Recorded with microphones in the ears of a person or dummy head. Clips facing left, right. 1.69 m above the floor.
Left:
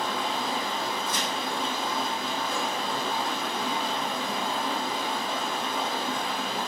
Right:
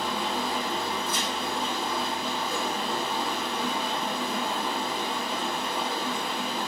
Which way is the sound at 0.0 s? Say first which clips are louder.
Even; 45° right (ahead or behind).